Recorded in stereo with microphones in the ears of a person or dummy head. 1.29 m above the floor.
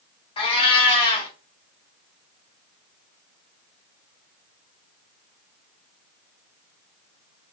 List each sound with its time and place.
0.4 s a cat meowing: 30° left (ahead or behind), 1.0 m